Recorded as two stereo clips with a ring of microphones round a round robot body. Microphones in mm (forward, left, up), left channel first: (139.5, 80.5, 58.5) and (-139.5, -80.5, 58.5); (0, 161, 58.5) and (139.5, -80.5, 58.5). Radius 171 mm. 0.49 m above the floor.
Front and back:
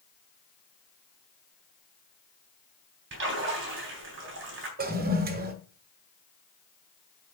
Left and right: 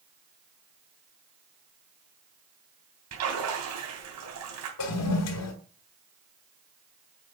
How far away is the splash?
About 3 m.